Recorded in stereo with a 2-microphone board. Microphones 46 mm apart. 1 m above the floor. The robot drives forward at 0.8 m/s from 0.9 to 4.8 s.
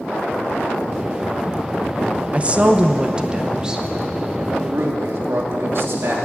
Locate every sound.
2.3 s a woman speaking: 30° right (ahead or behind), 0.8 m; by 3.9 s 15° right (ahead or behind), 1.6 m
4.5 s a man speaking: 55° right (ahead or behind), 2.5 m; by 6.2 s 60° right (ahead or behind), 2.5 m